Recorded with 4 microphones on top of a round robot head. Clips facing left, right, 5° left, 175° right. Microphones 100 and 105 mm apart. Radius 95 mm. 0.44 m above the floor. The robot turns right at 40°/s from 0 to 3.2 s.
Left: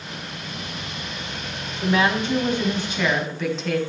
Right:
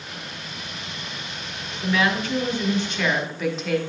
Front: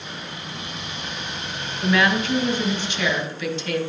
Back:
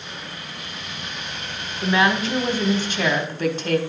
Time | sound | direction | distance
1.8 | a woman speaking | 130° left | 1.6 m